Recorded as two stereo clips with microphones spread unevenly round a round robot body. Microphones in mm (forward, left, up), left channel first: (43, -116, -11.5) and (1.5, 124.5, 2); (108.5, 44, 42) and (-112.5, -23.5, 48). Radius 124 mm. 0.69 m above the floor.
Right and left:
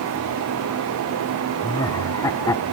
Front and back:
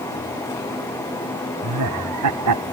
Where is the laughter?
155° right; by 2.6 s 160° right.